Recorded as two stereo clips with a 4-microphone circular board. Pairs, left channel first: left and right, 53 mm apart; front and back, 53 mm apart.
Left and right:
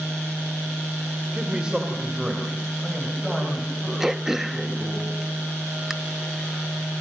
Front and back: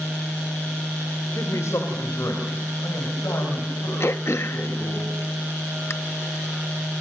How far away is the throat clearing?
About 0.8 m.